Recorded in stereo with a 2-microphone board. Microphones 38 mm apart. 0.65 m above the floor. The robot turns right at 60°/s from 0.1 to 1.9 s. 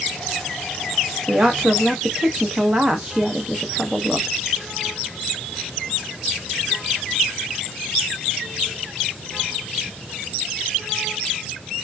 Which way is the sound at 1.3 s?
70° right.